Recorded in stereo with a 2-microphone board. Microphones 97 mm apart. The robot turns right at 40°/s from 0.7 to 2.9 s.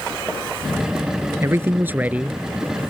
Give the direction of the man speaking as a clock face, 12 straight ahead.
2 o'clock.